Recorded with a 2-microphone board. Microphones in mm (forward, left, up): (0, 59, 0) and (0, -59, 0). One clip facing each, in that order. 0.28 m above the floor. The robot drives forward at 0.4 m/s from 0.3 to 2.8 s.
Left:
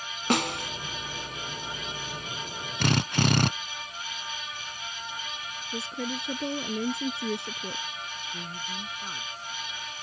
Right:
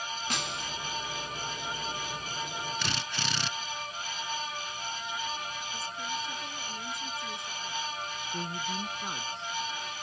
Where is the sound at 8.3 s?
25° right (ahead or behind).